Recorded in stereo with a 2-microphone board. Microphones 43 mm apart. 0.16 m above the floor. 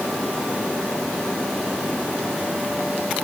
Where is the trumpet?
I don't hear a trumpet.